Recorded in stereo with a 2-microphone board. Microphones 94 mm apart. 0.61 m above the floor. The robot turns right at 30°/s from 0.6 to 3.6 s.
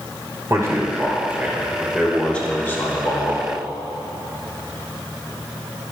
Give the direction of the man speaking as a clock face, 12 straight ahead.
1 o'clock.